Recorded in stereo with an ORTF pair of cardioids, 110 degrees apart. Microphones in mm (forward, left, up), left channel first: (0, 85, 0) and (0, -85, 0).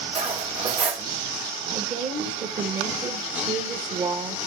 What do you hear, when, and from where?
0.1 s cutlery clinking: 40° right, 1.7 m
1.7 s a woman speaking: 45° right, 1.6 m